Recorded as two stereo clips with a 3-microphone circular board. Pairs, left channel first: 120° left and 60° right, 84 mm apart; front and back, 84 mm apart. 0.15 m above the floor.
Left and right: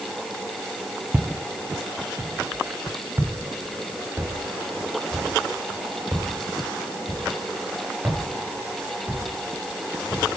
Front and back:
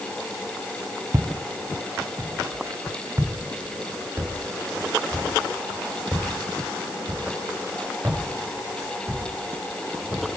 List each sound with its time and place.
1.1 s footsteps: 130° right, 0.8 m; by 10.2 s 120° right, 5.5 m